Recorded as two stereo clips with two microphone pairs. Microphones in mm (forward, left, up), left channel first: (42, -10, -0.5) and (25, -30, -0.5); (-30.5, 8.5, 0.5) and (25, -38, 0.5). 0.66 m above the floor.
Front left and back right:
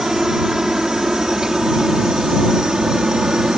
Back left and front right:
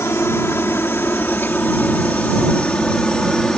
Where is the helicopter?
170° left; by 3.6 s 145° right.